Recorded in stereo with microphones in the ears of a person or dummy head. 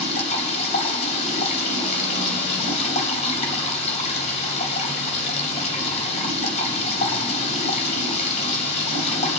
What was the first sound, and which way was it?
Running water, 35° left (ahead or behind).